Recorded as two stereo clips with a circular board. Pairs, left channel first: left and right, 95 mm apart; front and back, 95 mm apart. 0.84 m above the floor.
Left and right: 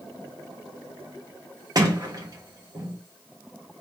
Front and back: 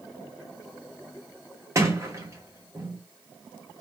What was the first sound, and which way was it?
A sliding door, 125° right.